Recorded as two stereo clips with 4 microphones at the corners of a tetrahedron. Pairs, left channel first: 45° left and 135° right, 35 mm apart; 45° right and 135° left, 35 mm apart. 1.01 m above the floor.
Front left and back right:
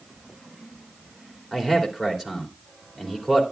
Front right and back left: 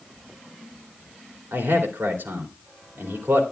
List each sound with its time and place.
1.5 s a man speaking: 145° left, 2.5 m